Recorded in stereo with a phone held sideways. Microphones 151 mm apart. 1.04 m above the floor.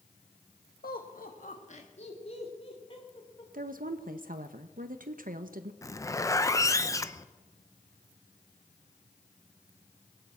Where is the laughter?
80° left, 1.0 m; by 3.4 s 35° left (ahead or behind), 3 m.